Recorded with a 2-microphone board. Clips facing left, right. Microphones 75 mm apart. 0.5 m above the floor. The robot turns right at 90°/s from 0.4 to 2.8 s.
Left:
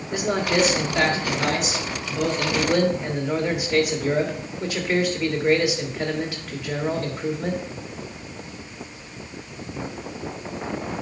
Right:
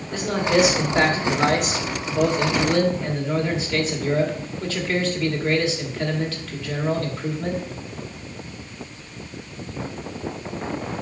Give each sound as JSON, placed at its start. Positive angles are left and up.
{"t": 0.1, "sound": "a man speaking", "azimuth_deg": 165, "distance_m": 1.9}